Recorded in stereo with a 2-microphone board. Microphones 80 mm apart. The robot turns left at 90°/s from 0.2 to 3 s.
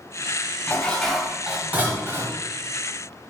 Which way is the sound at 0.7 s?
20° left (ahead or behind).